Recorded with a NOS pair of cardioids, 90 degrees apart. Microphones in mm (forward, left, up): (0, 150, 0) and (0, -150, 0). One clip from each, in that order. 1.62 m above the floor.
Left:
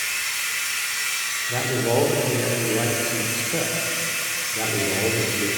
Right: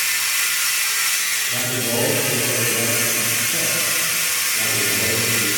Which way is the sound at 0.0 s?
60° right.